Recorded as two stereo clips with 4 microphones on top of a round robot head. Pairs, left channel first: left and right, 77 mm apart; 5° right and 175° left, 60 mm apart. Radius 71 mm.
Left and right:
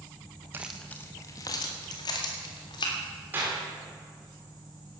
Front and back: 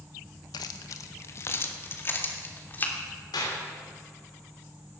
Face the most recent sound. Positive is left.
turn(degrees=-20)